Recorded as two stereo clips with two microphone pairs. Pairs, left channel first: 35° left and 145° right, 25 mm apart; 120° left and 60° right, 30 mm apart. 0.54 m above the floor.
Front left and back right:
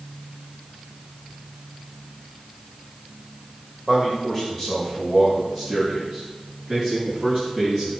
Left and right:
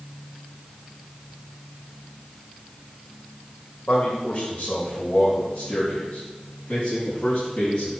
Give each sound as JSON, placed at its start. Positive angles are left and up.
{"t": 3.9, "sound": "a man speaking", "azimuth_deg": 145, "distance_m": 2.5}